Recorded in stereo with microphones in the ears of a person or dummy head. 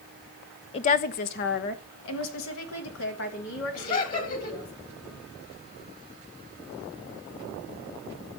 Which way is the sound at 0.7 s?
30° left (ahead or behind).